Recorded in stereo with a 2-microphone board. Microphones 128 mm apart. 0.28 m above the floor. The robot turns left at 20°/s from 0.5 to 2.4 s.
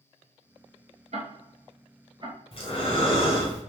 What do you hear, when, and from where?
1.1 s ticking: 60° right (ahead or behind), 0.7 m; by 2.4 s 35° right (ahead or behind), 0.7 m
2.5 s breathing: 45° left (ahead or behind), 1.1 m